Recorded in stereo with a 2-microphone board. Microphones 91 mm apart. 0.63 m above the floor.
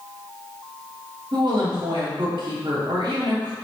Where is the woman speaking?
55° right (ahead or behind), 0.9 m.